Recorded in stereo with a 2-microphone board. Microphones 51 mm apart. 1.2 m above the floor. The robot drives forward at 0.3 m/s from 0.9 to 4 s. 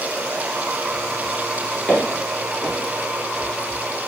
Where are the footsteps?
5° left (ahead or behind), 1.3 m.